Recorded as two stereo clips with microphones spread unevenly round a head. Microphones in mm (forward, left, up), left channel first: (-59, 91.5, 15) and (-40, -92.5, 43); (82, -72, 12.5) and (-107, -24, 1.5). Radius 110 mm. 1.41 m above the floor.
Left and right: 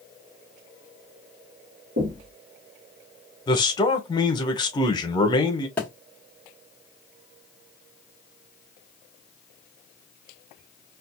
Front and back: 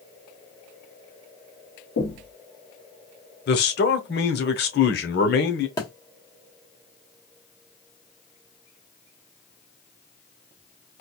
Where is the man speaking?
30° left, 0.8 m.